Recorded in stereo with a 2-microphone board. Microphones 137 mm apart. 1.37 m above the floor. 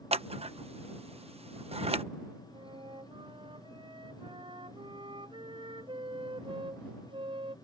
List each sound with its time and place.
0.1 s scissors: 45° right (ahead or behind)
2.5 s a flute: 40° right (ahead or behind)